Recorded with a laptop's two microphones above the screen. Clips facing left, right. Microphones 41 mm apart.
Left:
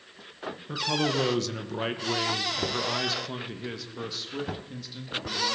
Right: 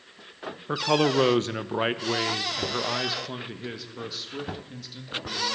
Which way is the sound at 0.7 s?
45° right (ahead or behind).